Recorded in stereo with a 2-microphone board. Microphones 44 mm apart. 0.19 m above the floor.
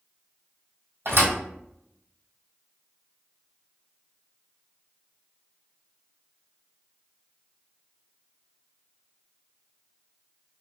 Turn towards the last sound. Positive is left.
turn(degrees=-65)  # may be behind; listen again after turning